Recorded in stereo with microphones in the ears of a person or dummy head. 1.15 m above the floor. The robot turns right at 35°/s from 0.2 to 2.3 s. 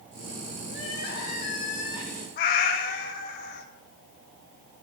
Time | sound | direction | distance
0.7 | crying | 100° left | 1.5 m
2.4 | a cat meowing | 50° left (ahead or behind) | 0.9 m